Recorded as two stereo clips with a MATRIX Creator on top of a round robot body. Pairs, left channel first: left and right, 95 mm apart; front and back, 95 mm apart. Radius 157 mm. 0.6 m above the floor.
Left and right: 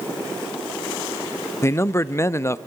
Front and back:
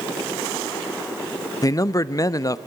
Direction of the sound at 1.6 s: 35° left.